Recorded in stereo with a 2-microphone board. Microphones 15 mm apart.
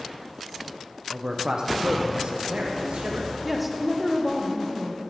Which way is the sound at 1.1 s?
25° right (ahead or behind).